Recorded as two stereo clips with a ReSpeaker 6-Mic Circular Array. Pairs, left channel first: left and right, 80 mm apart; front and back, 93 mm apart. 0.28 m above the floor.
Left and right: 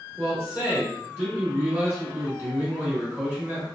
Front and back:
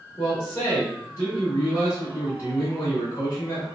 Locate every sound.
0.2 s a man speaking: 20° right, 1.1 m